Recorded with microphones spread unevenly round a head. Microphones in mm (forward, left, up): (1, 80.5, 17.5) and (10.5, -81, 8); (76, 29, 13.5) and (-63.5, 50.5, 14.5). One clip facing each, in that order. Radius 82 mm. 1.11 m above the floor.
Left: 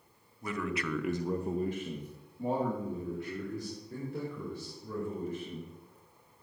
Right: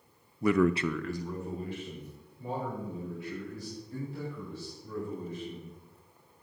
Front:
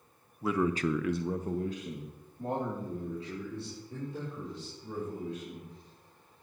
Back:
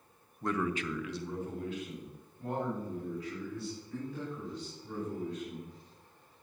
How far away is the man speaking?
About 0.7 m.